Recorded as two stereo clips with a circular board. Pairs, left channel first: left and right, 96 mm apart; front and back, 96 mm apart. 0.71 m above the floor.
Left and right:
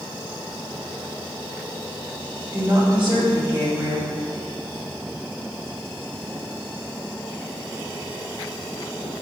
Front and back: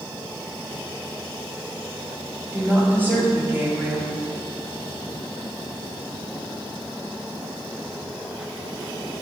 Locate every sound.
2.5 s a woman speaking: 115° right, 1.7 m